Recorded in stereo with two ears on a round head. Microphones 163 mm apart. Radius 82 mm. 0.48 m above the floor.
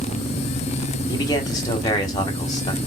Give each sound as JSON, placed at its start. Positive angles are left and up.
{"t": 1.1, "sound": "a man speaking", "side_deg": 20, "distance_m": 1.2}